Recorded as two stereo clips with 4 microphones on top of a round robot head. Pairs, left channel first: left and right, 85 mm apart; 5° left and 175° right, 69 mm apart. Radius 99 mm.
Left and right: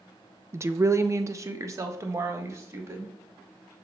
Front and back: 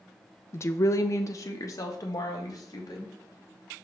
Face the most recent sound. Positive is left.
turn(degrees=-40)